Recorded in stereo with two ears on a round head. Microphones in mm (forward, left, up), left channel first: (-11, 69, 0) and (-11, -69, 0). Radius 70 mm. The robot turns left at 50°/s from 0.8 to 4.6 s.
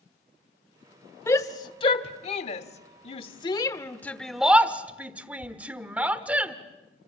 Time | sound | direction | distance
1.3 | a shout | 20° left (ahead or behind) | 1.3 m